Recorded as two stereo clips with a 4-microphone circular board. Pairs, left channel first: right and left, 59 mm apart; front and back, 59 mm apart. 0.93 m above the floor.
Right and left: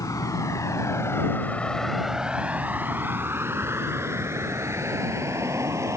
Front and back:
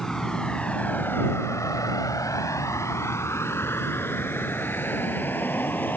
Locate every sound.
0.0 s a vehicle: 80° right; by 6.0 s 60° left